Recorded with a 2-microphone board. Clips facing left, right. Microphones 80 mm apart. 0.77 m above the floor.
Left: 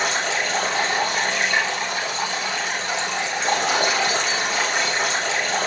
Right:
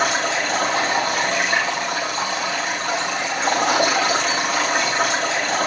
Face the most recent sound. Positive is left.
turn(degrees=-50)  # may be behind; listen again after turning